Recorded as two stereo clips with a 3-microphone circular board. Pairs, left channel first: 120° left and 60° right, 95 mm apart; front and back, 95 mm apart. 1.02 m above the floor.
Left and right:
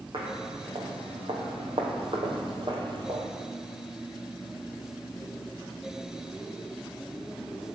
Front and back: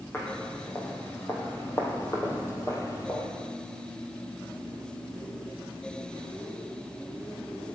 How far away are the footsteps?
About 3.5 m.